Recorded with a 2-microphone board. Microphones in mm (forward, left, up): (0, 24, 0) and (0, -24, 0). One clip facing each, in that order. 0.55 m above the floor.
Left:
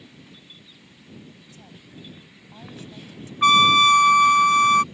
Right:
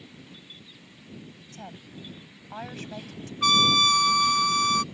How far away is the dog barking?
No dog barking in this recording.